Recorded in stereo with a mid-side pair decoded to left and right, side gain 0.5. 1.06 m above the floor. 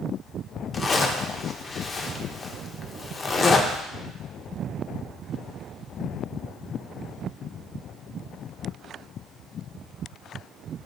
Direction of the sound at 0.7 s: 35° left.